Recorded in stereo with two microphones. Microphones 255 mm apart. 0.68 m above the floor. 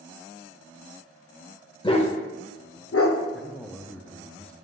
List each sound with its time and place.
1.8 s a dog barking: 20° left (ahead or behind), 0.7 m; by 3.2 s 60° left (ahead or behind), 0.7 m
3.3 s a man speaking: 5° left (ahead or behind), 0.6 m